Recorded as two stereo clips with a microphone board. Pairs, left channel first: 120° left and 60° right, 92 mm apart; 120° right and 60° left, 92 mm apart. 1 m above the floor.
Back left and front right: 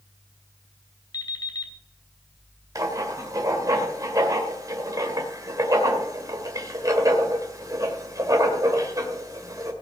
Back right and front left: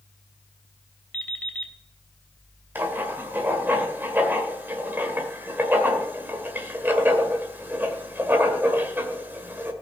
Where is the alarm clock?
165° left, 3 m.